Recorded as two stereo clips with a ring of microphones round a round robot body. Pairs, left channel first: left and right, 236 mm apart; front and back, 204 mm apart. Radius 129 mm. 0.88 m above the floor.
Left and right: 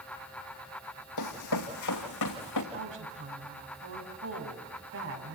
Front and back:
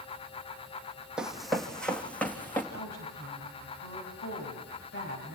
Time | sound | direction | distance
1.2 | running footsteps | 95° left | 2 m
2.7 | a woman speaking | 55° right | 7 m